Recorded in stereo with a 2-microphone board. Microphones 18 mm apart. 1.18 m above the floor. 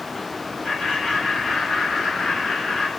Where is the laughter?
55° left (ahead or behind), 7 m.